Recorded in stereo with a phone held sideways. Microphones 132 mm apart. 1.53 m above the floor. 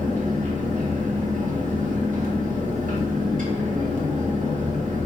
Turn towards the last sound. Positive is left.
turn(degrees=-80)